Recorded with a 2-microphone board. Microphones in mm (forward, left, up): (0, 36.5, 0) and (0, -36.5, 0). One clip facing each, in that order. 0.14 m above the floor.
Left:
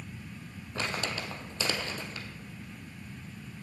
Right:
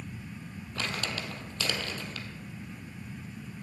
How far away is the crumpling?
About 1.4 m.